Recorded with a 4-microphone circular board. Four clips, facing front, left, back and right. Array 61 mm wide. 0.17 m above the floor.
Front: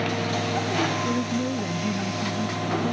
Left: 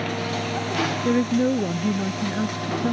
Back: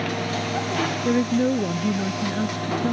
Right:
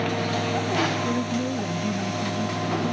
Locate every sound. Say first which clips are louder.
1.1 s a woman speaking: left 5 dB, back 5 dB; 135° left